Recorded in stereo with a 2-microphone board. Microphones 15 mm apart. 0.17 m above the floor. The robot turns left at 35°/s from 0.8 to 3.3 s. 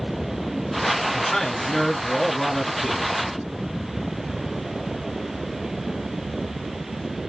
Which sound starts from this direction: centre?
A man speaking, at 1.1 s.